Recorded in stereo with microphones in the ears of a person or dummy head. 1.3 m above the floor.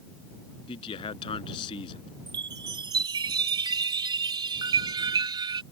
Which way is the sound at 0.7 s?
30° left (ahead or behind).